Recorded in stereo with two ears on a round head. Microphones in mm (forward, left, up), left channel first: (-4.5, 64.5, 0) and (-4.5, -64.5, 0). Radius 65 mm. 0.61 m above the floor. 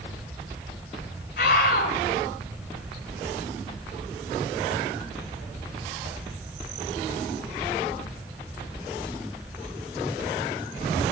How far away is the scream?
About 2.5 m.